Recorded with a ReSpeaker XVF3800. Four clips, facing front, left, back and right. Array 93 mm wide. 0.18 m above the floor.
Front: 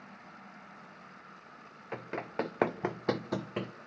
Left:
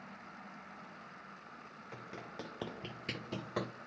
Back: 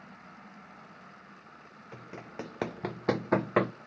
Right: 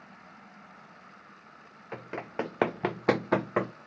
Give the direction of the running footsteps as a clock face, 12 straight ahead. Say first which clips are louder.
Right 12 dB, front 7 dB; 1 o'clock.